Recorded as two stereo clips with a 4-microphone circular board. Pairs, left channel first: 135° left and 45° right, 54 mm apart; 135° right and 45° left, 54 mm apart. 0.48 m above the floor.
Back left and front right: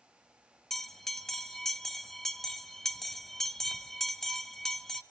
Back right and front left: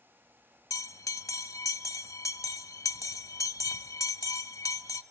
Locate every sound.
0.7 s a bell: 140° right, 1.1 m